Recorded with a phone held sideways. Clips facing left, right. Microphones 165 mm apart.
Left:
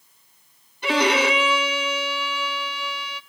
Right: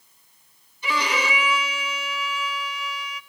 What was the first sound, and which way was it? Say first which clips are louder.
A violin: left 7 dB; 70° left (ahead or behind).